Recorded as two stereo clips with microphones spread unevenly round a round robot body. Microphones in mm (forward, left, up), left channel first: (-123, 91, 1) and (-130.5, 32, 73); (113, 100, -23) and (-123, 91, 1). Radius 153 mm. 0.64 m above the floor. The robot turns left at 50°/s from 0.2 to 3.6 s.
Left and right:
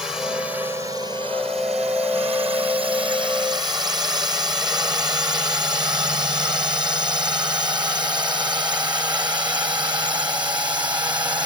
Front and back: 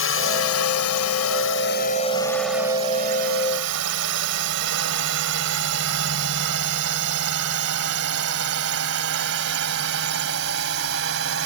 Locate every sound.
0.0 s a drone: 20° left; by 11.5 s 130° right